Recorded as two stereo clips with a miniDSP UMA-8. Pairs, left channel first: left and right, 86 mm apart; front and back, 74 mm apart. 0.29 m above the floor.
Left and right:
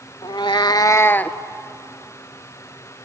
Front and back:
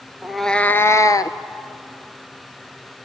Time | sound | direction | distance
0.2 | a cat meowing | 100° left | 0.6 m